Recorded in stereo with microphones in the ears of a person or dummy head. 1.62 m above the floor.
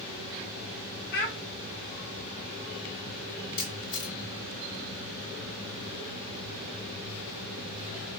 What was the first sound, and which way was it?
A child speaking, 55° left (ahead or behind).